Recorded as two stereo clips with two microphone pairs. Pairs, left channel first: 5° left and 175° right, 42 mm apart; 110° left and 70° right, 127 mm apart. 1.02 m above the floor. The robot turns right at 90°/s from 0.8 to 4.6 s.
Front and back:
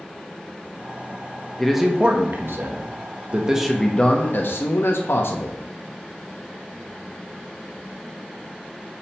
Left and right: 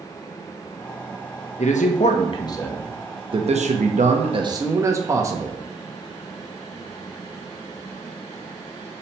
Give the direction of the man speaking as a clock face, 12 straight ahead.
9 o'clock.